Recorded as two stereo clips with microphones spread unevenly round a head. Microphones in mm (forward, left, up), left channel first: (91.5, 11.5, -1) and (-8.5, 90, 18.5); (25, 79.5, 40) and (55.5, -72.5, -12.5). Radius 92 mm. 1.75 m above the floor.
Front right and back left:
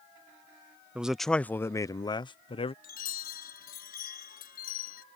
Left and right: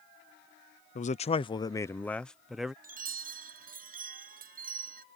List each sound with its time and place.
0.9 s a man speaking: 60° left; by 2.7 s 5° left
2.8 s a chime: 45° right